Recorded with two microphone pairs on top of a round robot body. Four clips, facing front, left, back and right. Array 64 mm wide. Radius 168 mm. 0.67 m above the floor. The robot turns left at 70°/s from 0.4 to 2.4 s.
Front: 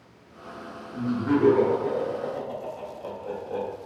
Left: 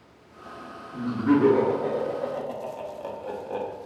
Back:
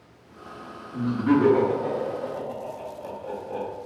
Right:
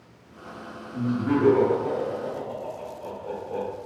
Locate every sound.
0.9 s laughter: 165° right, 1.6 m; by 3.7 s 90° left, 1.6 m